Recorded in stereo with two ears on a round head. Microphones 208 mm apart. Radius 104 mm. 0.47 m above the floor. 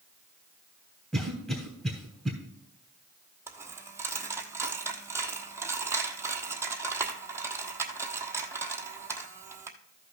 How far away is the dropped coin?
About 1.2 m.